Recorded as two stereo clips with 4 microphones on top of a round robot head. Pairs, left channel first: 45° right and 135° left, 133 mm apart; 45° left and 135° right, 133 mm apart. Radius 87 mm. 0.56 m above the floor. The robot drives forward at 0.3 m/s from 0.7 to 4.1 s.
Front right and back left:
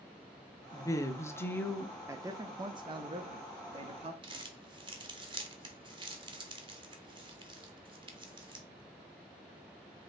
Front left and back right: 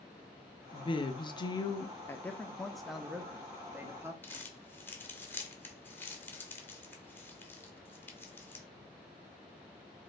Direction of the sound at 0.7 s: 10° left.